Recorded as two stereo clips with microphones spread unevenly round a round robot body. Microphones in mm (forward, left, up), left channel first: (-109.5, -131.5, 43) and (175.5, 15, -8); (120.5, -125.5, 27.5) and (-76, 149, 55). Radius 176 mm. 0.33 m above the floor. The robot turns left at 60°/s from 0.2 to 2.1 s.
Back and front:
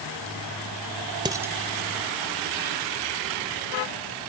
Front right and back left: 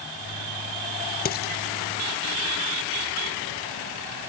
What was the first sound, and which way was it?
Dishes clattering, 25° right.